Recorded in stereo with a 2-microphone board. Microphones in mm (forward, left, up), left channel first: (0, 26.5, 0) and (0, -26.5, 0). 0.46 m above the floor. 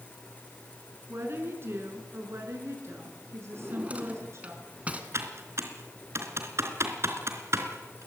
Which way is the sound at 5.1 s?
55° right (ahead or behind).